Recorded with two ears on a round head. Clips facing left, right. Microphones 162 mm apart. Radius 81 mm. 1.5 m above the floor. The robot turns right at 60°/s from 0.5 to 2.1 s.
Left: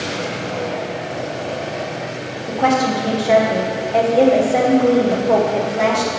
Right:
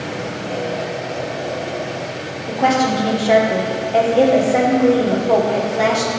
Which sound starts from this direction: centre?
A woman speaking, at 2.5 s.